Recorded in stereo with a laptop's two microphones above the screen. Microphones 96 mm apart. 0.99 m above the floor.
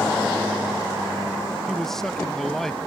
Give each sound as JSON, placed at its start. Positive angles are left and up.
{"t": 1.7, "sound": "a man speaking", "side_deg": 5}